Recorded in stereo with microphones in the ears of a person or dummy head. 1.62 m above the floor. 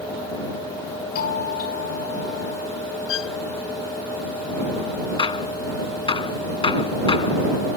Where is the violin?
70° left (ahead or behind).